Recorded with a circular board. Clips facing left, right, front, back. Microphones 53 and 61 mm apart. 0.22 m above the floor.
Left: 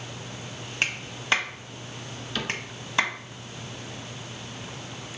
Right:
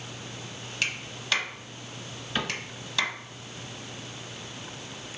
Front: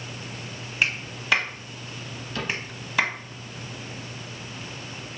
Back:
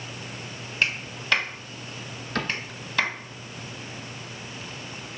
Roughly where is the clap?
Left.